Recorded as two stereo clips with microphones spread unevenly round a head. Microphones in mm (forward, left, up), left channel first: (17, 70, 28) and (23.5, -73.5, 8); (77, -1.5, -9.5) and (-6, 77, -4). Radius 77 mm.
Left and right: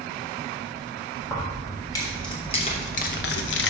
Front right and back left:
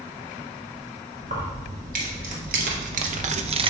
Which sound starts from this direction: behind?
Keys jangling, at 1.2 s.